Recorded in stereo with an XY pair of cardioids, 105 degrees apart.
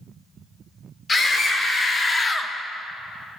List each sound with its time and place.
1.1 s a scream: 40° left, 2.5 m; by 2.5 s 5° left, 0.5 m